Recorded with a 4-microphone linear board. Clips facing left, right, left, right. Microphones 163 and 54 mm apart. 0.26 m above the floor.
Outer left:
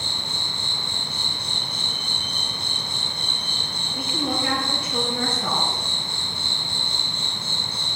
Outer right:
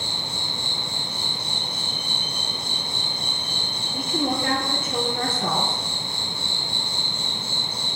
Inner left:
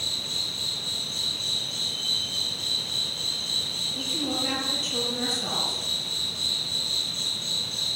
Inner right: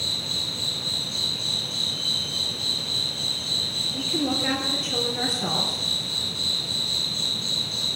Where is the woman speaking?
50° right (ahead or behind), 4.5 m.